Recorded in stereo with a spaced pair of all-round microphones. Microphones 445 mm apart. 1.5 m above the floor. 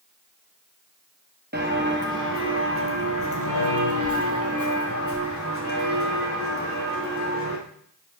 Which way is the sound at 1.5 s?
25° right (ahead or behind).